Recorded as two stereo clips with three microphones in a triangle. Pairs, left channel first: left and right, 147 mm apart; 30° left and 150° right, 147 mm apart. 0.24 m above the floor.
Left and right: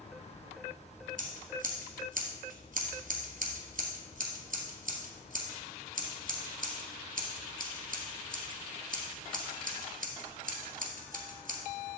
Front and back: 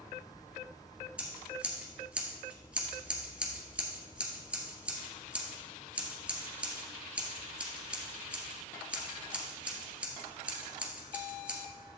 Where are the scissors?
70° right, 1.6 m.